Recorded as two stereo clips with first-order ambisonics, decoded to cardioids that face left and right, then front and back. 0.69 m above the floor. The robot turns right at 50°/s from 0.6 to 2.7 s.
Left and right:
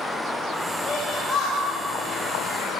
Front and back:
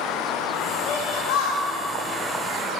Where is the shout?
Straight ahead, 3 m; by 2.8 s 90° left, 3 m.